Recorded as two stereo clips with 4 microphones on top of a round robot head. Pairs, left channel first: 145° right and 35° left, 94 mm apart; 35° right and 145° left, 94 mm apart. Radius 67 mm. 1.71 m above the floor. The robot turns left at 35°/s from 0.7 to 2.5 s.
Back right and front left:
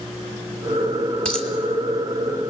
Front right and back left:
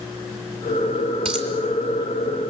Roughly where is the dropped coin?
Behind left.